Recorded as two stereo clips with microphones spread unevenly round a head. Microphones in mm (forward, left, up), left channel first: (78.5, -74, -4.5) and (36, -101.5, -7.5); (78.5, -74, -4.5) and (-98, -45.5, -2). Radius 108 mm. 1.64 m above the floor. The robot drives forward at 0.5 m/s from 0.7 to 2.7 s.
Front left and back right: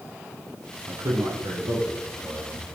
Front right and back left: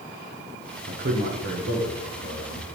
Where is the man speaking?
165° right, 1.1 m; by 2.6 s 170° right, 1.9 m.